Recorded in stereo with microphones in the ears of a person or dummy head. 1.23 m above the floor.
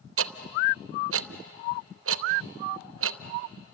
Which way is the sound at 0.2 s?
65° right (ahead or behind).